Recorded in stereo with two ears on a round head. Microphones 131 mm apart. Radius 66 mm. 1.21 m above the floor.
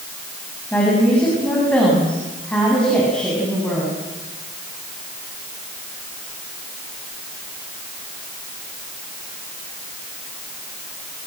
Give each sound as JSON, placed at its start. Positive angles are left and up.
{"t": 0.7, "sound": "a woman speaking", "side_deg": 10, "distance_m": 8.5}